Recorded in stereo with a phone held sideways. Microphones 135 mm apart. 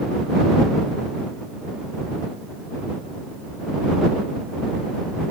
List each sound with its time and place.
Only background noise.